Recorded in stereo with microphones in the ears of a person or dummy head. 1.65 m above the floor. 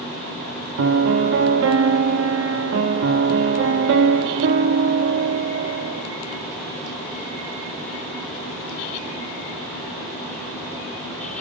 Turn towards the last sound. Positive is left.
turn(degrees=-70)  # may be behind; listen again after turning